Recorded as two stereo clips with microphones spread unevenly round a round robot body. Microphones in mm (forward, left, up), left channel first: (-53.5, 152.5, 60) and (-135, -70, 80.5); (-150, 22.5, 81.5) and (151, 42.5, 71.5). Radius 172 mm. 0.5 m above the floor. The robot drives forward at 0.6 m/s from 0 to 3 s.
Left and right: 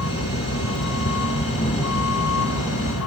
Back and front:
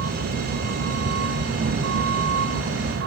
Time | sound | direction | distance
0.0 | a vehicle | 55° left | ?